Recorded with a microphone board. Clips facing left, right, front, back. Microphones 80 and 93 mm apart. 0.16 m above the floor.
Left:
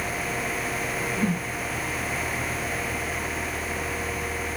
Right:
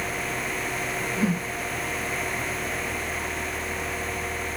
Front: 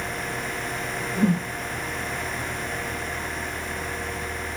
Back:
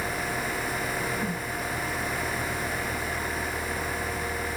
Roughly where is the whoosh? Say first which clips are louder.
Right 2 dB, front 8 dB; ahead.